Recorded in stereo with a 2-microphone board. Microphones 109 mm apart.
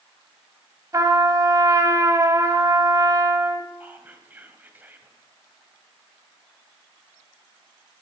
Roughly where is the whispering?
Centre.